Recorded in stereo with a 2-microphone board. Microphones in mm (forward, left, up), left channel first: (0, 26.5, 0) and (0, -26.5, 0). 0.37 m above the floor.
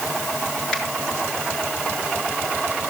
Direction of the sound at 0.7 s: 10° left (ahead or behind).